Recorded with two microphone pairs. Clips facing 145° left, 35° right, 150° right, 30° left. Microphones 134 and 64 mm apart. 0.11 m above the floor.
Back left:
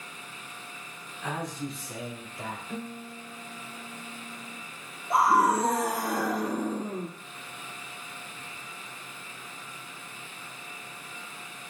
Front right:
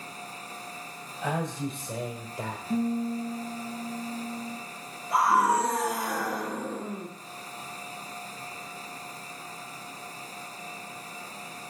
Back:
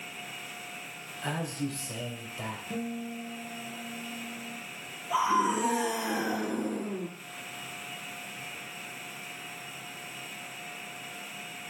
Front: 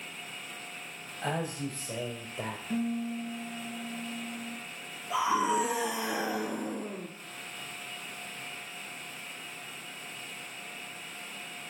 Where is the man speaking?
5° right, 3 m; by 2.6 s straight ahead, 2.5 m.